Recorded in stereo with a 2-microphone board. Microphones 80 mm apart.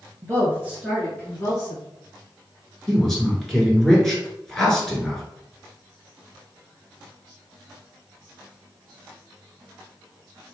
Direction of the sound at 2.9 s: 5° left (ahead or behind).